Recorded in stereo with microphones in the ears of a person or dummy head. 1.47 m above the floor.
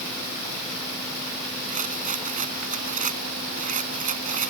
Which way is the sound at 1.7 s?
45° right (ahead or behind).